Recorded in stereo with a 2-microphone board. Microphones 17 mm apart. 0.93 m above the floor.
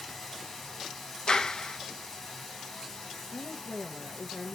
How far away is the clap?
About 0.5 m.